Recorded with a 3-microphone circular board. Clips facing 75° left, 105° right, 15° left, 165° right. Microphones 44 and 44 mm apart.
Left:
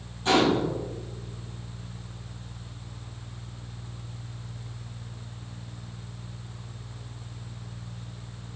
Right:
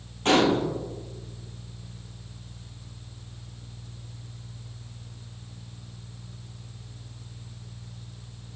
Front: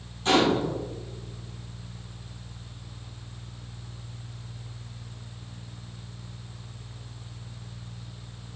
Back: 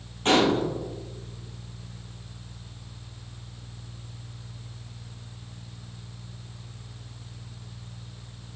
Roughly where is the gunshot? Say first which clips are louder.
Right 1 dB, back 1 dB; behind right.